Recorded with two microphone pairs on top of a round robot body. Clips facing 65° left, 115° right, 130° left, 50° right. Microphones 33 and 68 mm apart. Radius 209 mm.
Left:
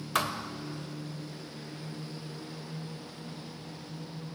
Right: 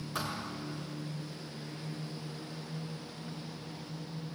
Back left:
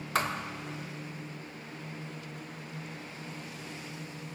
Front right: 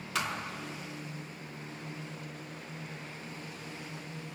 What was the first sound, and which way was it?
A thud, 80° left.